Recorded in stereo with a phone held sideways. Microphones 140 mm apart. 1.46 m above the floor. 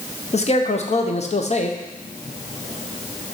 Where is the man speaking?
50° left (ahead or behind), 0.8 m.